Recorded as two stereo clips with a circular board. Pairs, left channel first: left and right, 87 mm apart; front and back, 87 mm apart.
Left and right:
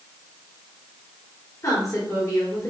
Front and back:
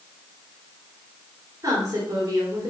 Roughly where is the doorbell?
I don't hear a doorbell.